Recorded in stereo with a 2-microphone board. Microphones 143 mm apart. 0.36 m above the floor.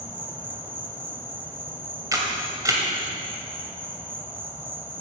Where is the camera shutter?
25° right (ahead or behind), 1.7 m.